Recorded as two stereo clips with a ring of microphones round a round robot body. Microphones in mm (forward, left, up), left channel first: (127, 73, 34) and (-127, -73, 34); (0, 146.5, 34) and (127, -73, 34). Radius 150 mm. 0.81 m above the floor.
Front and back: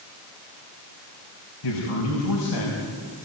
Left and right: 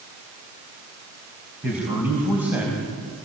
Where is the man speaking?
25° left, 4.5 m.